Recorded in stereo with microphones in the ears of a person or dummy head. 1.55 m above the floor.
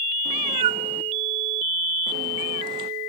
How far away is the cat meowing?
About 0.7 m.